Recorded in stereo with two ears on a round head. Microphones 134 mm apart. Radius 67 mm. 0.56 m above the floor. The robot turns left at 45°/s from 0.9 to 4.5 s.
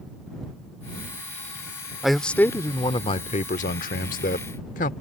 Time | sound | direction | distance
2.0 | a man speaking | straight behind | ?